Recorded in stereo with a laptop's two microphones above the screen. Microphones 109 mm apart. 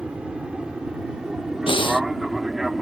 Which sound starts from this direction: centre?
An aircraft, at 0.0 s.